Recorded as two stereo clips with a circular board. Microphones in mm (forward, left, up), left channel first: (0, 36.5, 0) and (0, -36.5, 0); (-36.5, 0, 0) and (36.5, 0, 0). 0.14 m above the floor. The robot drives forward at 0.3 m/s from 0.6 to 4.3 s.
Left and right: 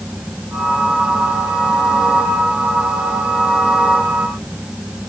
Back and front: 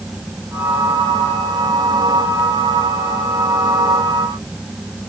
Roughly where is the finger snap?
I don't hear a finger snap.